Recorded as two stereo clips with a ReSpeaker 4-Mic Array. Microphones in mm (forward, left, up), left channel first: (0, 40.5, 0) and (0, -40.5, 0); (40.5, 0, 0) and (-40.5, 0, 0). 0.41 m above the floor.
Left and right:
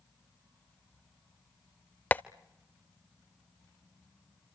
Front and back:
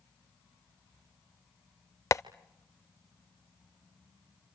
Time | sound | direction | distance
2.1 | tapping | 30° left | 0.5 m